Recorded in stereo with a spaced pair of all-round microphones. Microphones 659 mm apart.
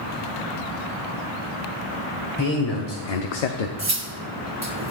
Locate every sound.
2.4 s a man speaking: 25° left (ahead or behind), 1.2 m; by 3.7 s 60° left (ahead or behind), 0.7 m
3.8 s cutlery clinking: 25° right (ahead or behind), 0.7 m